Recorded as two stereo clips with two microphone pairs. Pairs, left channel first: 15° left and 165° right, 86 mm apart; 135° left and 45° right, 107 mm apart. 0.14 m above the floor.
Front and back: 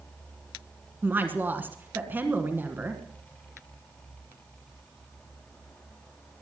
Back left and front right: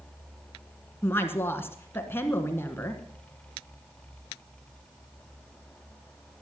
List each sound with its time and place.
1.0 s a woman speaking: 165° left, 1.5 m